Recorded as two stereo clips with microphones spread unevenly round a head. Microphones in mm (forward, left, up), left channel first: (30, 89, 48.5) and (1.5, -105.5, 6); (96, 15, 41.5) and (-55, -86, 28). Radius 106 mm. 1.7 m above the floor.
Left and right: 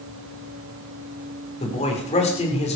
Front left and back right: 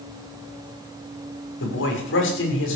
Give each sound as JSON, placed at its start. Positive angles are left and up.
{"t": 1.6, "sound": "a man speaking", "azimuth_deg": 25, "distance_m": 6.5}